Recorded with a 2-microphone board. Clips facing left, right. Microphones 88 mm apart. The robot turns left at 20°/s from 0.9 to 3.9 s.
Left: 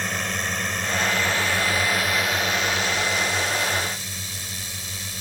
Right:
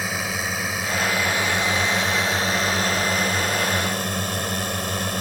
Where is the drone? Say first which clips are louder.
Right 1 dB; 5° right; by 5.2 s 65° right.